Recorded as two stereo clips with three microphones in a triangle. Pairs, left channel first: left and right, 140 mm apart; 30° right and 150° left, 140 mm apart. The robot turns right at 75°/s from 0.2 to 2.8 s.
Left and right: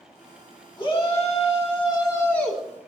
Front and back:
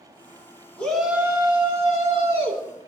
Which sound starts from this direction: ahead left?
A shout, at 0.8 s.